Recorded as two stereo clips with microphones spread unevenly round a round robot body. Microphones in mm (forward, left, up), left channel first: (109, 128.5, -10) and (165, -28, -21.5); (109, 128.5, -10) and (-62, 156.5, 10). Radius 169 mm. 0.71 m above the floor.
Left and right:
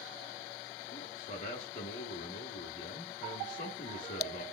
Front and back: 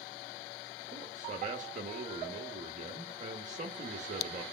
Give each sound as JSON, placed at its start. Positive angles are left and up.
{"t": 0.9, "sound": "a man speaking", "azimuth_deg": 140, "distance_m": 0.8}